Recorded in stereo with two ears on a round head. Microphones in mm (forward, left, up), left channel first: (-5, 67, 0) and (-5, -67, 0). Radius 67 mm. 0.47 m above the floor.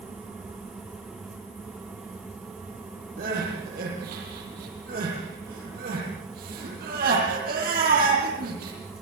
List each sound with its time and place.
3.2 s crying: 65° right (ahead or behind), 9.5 m